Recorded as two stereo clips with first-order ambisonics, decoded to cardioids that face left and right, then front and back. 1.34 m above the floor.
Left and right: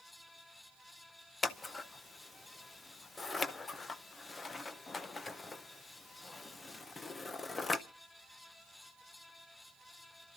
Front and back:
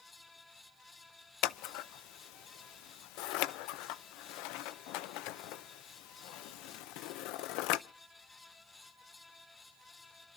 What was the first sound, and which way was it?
Scissors, 15° left.